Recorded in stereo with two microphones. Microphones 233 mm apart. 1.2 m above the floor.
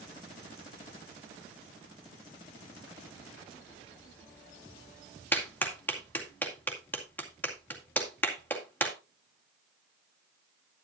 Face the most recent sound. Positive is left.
turn(degrees=10)  # may be behind; listen again after turning